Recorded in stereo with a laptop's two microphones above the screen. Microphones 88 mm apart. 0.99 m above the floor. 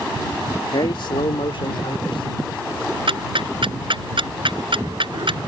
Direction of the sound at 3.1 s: 80° right.